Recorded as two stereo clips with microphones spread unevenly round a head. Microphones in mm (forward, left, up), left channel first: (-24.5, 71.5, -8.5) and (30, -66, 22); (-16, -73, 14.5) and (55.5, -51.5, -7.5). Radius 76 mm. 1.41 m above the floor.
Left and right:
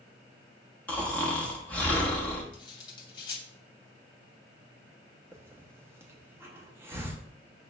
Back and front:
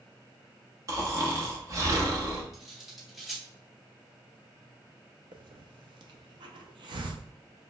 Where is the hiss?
Straight ahead, 0.6 m.